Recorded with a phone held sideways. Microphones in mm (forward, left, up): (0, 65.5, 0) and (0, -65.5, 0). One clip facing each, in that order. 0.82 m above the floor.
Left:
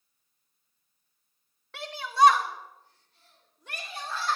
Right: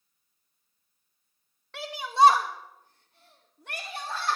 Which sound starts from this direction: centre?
A shout, at 1.7 s.